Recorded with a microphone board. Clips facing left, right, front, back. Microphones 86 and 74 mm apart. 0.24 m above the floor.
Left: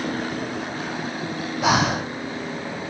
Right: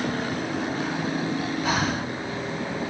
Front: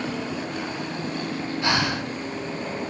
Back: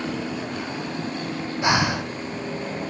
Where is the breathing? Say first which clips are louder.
Left 9 dB, back 4 dB; 110° left, 1.7 m.